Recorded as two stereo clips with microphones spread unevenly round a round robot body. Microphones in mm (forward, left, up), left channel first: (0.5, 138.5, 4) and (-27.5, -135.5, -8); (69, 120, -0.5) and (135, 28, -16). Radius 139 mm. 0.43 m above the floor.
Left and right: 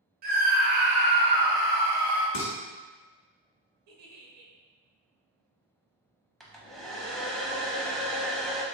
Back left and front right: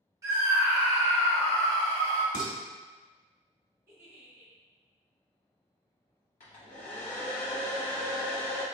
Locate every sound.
0.2 s a scream: 75° right, 0.9 m; by 2.2 s 175° right, 1.3 m
2.3 s dishes clattering: 120° left, 1.4 m
3.9 s a giggle: 115° right, 0.9 m
6.4 s a hair dryer: 175° left, 0.6 m